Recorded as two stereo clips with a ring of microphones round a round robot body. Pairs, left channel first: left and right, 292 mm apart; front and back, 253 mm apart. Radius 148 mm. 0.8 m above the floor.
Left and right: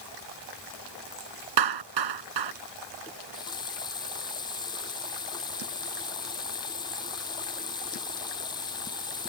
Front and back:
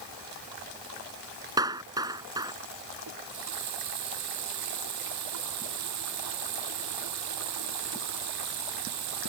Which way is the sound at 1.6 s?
100° right.